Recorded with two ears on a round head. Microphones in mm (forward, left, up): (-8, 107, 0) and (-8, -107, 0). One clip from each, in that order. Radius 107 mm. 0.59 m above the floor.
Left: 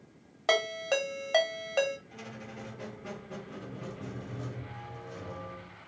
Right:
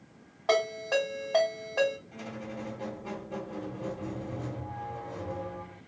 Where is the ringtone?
75° left (ahead or behind), 1.2 m.